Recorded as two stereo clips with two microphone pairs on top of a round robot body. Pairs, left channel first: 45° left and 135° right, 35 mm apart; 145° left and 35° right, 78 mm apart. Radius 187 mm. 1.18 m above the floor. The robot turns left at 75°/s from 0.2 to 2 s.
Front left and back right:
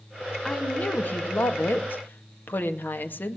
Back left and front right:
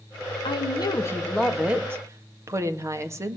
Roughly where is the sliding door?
No sliding door in this recording.